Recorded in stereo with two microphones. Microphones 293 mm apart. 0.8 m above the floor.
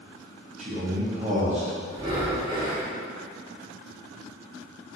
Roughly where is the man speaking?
Right.